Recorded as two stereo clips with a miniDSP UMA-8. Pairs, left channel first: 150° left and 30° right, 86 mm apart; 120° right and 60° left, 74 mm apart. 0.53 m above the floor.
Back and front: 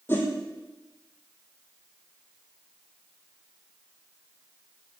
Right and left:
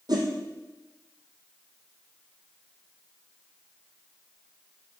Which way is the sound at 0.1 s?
85° left.